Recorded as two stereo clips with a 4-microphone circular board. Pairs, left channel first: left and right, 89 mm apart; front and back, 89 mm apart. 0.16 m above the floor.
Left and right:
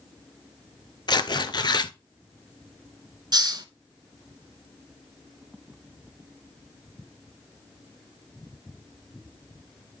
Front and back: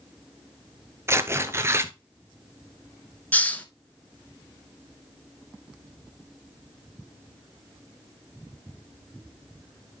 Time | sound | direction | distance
1.1 | tearing paper | 120° left | 0.5 m
3.3 | a hiss | 70° right | 0.7 m